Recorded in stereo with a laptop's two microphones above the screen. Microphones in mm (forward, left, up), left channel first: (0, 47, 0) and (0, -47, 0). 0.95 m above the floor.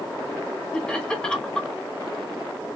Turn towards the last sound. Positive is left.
turn(degrees=10)  # may be behind; listen again after turning